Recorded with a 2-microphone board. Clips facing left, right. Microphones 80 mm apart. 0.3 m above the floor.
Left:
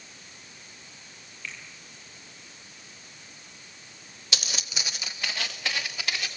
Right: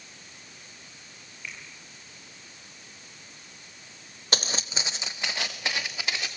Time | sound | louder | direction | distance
1.4 | a finger snap | left 1 dB | 15° right (ahead or behind) | 7.5 m
4.3 | footsteps | right 4 dB | 45° right (ahead or behind) | 0.7 m